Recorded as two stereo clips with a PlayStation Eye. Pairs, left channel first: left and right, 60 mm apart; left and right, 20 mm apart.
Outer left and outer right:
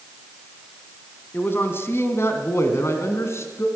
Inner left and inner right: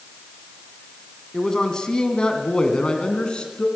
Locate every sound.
1.3 s a man speaking: 40° left (ahead or behind), 1.8 m; by 3.7 s 50° left (ahead or behind), 2.5 m